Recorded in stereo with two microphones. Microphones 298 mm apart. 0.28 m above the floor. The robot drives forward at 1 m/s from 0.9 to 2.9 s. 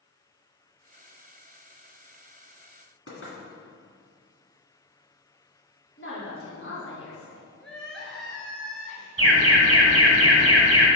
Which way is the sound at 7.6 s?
Centre (ahead or behind).